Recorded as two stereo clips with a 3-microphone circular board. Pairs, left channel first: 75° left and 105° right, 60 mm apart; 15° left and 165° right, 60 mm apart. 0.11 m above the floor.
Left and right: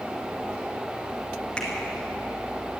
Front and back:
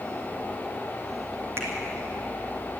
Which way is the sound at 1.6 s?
150° left.